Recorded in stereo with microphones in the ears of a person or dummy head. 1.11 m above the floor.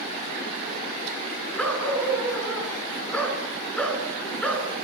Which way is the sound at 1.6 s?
5° left (ahead or behind).